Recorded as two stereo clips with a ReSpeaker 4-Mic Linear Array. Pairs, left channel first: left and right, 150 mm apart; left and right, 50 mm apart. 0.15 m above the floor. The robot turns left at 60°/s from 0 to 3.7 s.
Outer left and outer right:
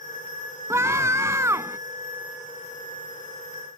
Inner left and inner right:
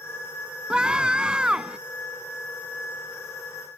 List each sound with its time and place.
0.7 s a scream: 15° right (ahead or behind)